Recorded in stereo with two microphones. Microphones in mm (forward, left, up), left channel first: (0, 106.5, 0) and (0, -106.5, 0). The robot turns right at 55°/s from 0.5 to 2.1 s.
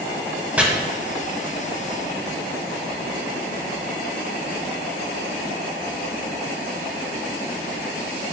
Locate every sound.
0.6 s chopping: 5° right (ahead or behind), 0.5 m